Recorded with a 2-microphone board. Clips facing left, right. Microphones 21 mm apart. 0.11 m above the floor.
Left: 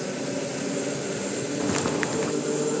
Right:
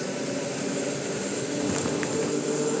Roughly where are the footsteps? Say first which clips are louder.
Left 3 dB; left.